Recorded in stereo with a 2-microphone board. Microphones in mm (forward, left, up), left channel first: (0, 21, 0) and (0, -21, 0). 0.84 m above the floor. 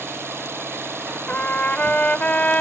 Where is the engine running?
65° right (ahead or behind).